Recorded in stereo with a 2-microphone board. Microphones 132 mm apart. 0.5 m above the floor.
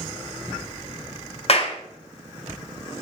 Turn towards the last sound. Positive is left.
turn(degrees=50)  # may be behind; listen again after turning